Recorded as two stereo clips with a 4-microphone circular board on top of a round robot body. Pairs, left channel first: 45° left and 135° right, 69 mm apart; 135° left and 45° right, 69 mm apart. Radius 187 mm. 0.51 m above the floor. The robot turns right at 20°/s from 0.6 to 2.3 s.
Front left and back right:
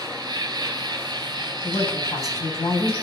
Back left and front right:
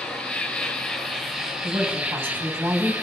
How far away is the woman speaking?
About 6 m.